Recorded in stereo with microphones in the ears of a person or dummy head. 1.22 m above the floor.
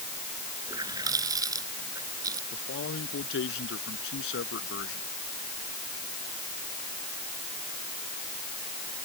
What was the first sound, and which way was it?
A running tap, 20° right (ahead or behind).